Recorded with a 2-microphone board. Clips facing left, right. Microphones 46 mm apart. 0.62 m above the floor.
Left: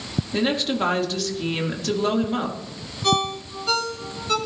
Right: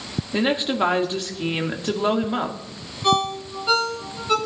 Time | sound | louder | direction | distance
0.3 | a woman speaking | right 2 dB | 15° right (ahead or behind) | 1.3 m
3.0 | a ringtone | right 2 dB | 10° right (ahead or behind) | 3 m